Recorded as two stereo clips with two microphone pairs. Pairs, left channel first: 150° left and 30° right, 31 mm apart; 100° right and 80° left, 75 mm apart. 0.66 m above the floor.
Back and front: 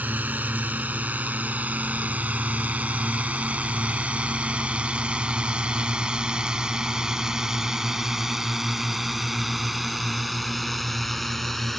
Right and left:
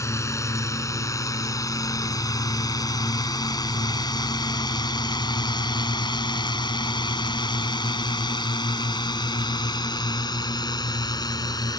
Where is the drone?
55° right; by 11.8 s 130° right.